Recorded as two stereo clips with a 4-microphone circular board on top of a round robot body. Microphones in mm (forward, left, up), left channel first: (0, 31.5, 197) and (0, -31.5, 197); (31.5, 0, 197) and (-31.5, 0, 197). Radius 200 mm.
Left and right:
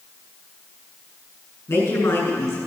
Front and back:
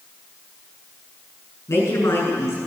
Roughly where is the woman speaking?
Ahead left.